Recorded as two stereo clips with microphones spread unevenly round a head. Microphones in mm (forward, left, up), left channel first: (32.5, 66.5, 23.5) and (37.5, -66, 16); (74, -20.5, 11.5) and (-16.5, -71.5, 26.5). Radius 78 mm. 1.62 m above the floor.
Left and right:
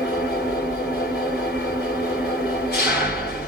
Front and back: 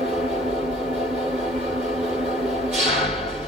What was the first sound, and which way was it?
An engine running, 120° left.